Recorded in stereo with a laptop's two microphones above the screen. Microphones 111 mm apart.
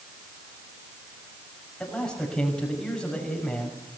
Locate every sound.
1.8 s a man speaking: 5° left (ahead or behind), 5.5 m